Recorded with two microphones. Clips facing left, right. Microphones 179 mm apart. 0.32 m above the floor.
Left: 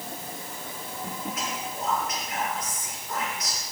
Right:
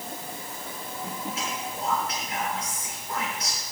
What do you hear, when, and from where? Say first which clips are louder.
1.4 s whispering: even; 30° right (ahead or behind), 5.5 m